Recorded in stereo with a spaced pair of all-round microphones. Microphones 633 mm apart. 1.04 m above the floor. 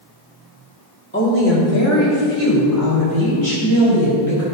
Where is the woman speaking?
15° left (ahead or behind), 2 m; by 4.4 s 40° left (ahead or behind), 5.5 m.